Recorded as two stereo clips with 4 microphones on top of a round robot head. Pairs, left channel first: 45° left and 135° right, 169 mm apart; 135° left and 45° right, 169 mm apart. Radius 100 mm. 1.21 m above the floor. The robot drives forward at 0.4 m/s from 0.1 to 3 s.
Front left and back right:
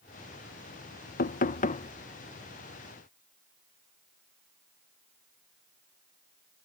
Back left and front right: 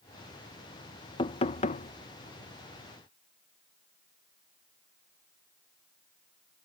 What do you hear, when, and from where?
1.2 s knocking: 75° left; by 1.9 s 90° left